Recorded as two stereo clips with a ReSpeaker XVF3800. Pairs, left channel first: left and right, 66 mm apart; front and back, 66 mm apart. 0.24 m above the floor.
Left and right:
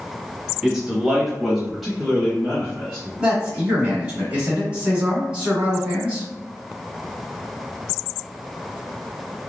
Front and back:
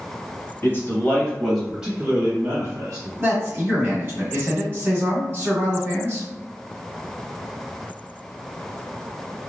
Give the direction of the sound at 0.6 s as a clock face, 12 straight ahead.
12 o'clock.